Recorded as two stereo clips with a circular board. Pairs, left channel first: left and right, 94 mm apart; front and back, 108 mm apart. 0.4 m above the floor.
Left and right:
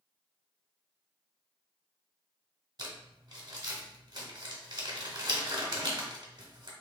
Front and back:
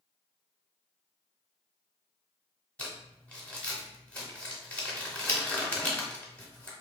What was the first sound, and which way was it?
Crumpling, 75° right.